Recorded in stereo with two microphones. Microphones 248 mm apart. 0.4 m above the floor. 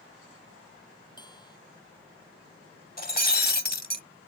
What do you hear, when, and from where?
1.2 s a bell: 15° left (ahead or behind)
3.0 s breaking glass: 40° left (ahead or behind)